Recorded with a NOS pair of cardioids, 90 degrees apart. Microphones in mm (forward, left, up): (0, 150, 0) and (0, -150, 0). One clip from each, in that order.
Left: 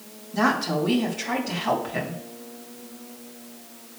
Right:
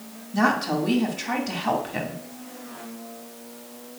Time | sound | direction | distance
0.3 | a woman speaking | 10° right | 2 m